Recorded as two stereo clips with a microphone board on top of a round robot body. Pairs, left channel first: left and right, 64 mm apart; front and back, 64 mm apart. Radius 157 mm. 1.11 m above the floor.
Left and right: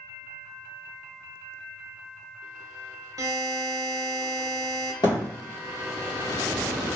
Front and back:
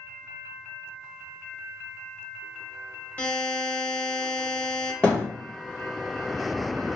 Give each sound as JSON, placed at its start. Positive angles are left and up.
{"t": 3.2, "sound": "a buzzer", "azimuth_deg": -65, "distance_m": 0.9}
{"t": 5.0, "sound": "a thud", "azimuth_deg": 75, "distance_m": 1.2}